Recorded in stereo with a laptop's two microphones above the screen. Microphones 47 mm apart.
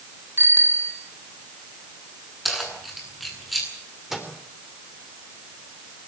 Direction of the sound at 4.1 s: 5° right (ahead or behind).